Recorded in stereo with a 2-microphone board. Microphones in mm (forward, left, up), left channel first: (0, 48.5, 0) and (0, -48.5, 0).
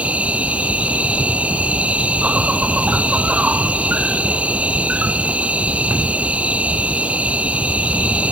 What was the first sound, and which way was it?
An insect, 15° right (ahead or behind).